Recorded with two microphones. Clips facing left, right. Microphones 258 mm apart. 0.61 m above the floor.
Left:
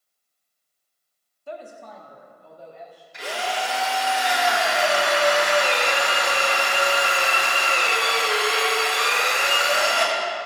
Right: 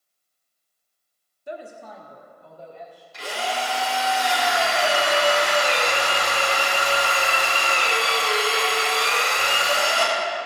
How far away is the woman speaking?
About 1.1 m.